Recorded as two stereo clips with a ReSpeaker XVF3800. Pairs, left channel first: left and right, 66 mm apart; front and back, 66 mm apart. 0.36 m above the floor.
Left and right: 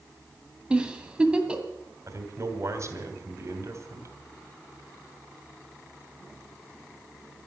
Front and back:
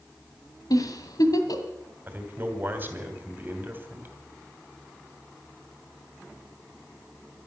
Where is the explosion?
I don't hear an explosion.